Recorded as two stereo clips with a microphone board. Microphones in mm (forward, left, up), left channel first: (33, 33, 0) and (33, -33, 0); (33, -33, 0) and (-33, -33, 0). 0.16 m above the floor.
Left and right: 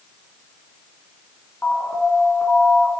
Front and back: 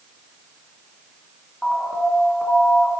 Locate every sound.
1.6 s an alarm: 70° left, 2.5 m